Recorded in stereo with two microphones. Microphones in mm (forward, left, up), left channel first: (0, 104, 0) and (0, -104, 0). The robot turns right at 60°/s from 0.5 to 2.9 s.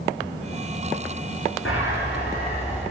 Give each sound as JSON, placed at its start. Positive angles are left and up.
{"t": 1.6, "sound": "a bird", "azimuth_deg": 90, "distance_m": 6.0}